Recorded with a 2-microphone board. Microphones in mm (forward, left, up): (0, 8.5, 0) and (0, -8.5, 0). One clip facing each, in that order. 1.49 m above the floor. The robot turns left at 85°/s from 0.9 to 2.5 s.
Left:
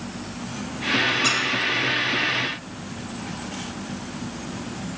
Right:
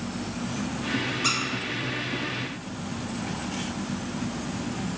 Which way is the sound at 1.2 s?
Centre (ahead or behind).